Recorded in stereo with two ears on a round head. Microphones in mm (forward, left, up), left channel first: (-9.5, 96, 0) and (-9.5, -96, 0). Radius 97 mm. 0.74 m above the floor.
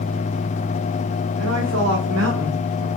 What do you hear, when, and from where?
1.4 s a woman speaking: 75° right (ahead or behind), 3 m; by 2.9 s 55° right (ahead or behind), 2 m